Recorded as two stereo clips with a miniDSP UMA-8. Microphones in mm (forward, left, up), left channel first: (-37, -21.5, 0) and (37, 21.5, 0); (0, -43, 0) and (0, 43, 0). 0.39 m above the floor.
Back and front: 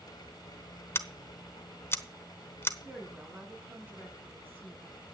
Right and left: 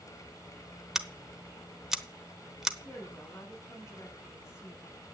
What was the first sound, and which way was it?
Scissors, 170° left.